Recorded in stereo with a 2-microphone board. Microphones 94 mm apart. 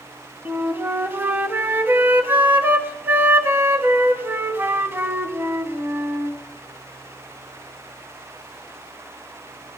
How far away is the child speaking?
No child speaking in this recording.